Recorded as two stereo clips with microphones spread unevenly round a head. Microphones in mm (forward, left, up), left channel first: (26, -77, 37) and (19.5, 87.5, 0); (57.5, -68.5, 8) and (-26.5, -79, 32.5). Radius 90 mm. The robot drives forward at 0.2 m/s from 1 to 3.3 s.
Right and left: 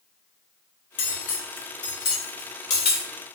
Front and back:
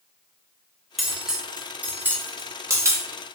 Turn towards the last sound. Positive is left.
turn(degrees=-125)